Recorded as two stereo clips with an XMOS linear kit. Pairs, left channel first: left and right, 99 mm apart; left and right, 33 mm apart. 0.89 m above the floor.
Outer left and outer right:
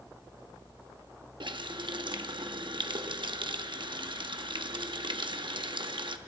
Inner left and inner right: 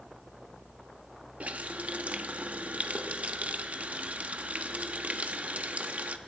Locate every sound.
1.4 s a running tap: 50° right (ahead or behind), 0.9 m